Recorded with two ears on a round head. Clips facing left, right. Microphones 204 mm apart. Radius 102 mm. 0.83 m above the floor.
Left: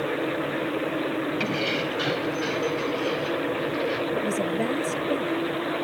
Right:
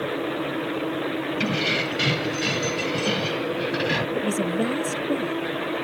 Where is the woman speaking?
15° right (ahead or behind).